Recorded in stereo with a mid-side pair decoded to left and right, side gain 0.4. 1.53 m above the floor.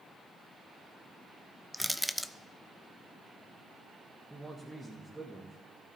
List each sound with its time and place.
1.7 s crushing: 5° left, 0.6 m
4.3 s a man speaking: 5° right, 1.8 m